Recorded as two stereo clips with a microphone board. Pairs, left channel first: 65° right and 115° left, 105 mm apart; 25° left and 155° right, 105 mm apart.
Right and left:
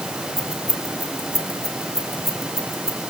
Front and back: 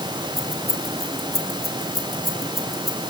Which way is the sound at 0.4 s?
110° left.